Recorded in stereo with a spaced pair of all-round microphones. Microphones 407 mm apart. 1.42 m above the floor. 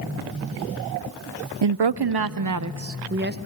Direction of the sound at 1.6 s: 80° right.